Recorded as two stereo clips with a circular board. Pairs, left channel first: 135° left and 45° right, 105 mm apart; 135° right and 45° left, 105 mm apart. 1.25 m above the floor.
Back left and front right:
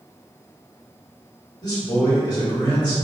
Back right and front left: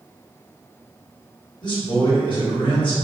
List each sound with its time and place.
1.6 s a man speaking: 175° right, 1.6 m